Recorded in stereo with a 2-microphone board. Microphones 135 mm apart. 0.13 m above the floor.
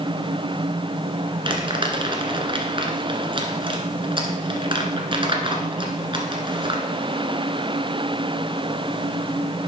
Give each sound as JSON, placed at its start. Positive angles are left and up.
{"t": 1.4, "sound": "crumpling", "side_deg": -40, "distance_m": 1.5}